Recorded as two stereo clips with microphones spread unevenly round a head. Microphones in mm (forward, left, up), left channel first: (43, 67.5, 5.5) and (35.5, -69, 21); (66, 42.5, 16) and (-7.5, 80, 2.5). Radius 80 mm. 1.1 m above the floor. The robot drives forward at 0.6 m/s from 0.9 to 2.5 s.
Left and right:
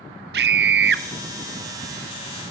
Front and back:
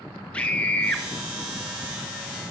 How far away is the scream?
About 0.6 m.